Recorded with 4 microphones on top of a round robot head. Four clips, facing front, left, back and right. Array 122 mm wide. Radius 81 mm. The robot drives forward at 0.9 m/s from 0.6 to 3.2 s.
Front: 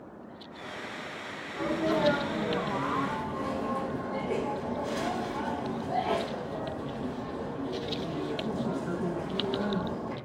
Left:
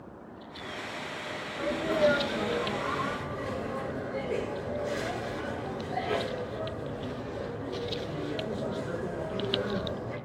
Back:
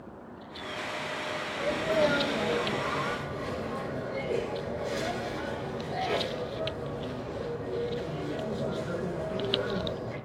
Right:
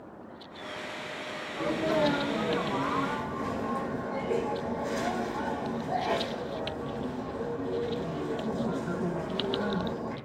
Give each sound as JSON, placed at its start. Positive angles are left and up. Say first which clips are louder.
{"t": 1.5, "sound": "a sneeze", "louder": "right 1 dB, even", "azimuth_deg": -50, "distance_m": 8.0}